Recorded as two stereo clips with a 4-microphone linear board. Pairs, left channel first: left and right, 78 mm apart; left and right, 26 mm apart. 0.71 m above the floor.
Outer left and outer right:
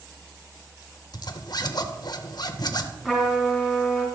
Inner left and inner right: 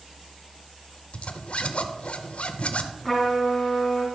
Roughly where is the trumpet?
Centre.